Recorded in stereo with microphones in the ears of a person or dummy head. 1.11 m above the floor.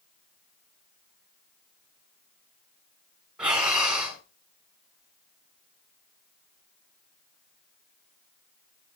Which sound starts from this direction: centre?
Breathing, at 3.4 s.